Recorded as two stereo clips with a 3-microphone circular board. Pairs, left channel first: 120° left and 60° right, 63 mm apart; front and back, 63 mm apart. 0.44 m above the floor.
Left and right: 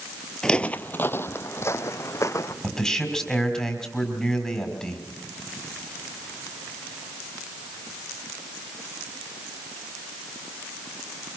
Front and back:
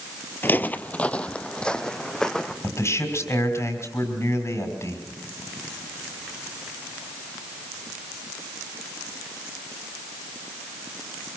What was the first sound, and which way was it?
Footsteps, 40° left.